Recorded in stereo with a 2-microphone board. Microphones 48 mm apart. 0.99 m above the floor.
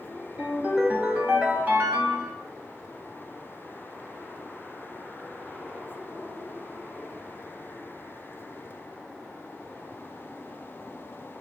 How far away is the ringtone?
About 1.0 m.